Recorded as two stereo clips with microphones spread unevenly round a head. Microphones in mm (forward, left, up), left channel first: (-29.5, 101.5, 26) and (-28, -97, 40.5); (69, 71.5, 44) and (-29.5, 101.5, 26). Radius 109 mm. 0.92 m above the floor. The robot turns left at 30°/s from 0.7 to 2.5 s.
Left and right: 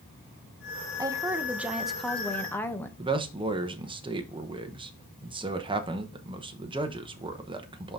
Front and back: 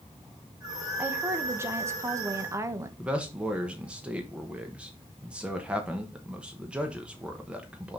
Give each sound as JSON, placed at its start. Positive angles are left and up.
{"t": 1.0, "sound": "a woman speaking", "azimuth_deg": -155, "distance_m": 1.0}
{"t": 3.0, "sound": "a man speaking", "azimuth_deg": -145, "distance_m": 0.9}